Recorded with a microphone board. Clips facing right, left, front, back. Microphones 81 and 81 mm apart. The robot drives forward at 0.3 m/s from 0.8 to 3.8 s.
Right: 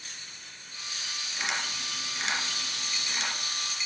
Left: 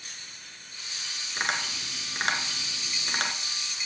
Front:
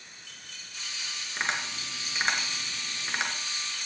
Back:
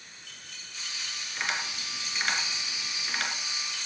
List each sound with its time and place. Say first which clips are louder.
1.4 s tapping: left 3 dB, front 1 dB; 55° left, 2.5 m; by 3.3 s 70° left, 2 m